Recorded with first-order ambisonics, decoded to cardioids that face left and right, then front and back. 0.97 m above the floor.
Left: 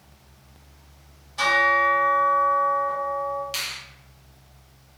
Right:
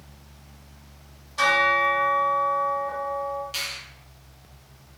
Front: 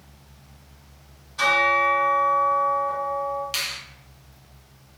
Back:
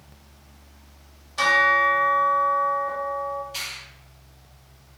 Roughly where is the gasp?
No gasp in this recording.